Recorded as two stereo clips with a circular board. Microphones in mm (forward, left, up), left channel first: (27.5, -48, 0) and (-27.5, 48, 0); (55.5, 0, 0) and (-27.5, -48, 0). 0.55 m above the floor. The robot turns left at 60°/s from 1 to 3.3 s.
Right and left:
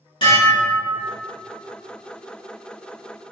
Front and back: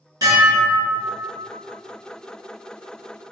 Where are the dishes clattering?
100° right, 1.1 m; by 1.1 s 105° right, 1.1 m.